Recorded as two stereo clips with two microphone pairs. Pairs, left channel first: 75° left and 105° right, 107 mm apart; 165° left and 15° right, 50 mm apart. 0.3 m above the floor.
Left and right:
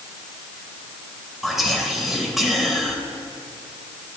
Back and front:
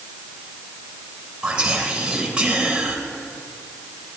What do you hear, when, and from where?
1.4 s whispering: 20° right, 0.9 m